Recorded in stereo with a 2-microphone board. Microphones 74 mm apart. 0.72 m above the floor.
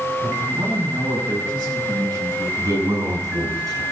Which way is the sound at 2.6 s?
55° right (ahead or behind).